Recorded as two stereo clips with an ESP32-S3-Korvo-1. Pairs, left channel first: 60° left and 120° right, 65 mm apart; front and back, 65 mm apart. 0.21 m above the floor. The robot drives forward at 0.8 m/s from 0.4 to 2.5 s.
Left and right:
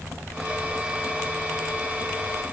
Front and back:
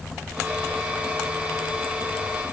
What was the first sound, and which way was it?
Only background noise.